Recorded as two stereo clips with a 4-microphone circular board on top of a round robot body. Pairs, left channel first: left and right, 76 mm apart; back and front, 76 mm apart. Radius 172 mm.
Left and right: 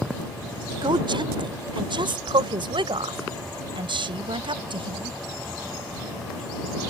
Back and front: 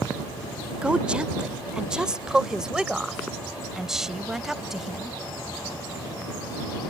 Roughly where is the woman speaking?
Right.